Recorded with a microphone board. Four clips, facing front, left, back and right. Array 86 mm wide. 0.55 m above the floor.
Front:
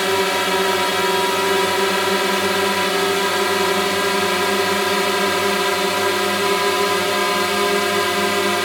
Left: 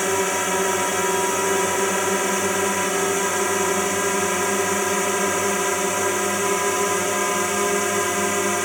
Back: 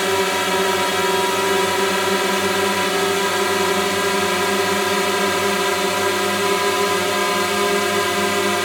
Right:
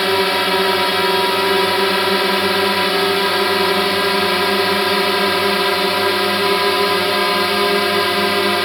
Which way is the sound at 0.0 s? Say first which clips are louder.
Right 5 dB, even; 85° right.